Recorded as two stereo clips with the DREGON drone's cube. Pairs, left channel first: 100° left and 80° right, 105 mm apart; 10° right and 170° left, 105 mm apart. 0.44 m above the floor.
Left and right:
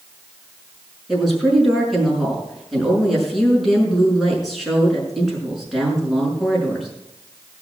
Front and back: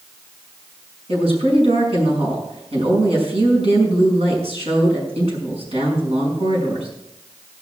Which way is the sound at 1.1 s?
170° right.